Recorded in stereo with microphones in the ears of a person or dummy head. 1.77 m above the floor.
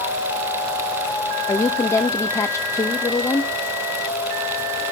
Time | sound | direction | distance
1.5 | a woman speaking | 10° left (ahead or behind) | 1.0 m